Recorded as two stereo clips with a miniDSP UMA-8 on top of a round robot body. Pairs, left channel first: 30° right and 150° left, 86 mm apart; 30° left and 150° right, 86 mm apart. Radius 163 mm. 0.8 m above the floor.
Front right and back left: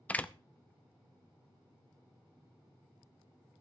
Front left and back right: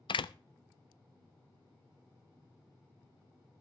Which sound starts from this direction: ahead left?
A door slam, at 0.1 s.